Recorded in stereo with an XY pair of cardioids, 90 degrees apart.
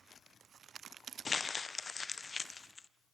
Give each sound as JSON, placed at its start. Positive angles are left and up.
{"t": 1.2, "sound": "crumpling", "azimuth_deg": 40, "distance_m": 0.8}